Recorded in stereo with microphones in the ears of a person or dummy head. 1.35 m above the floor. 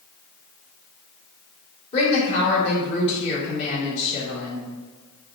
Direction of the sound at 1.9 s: 35° left (ahead or behind).